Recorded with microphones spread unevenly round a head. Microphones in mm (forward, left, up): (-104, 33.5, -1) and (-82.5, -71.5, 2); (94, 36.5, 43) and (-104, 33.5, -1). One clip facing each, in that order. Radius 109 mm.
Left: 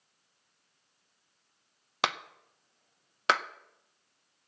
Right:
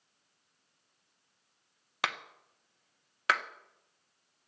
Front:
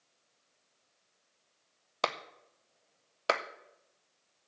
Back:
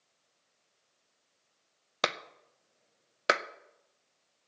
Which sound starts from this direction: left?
A clap, at 2.0 s.